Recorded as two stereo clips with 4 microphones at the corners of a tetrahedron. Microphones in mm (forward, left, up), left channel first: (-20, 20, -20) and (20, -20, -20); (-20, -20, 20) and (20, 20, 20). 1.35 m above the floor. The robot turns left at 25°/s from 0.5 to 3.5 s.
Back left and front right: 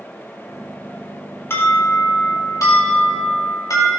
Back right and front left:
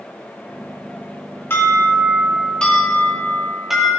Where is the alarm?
175° left, 4 m; by 3.9 s 125° left, 4 m.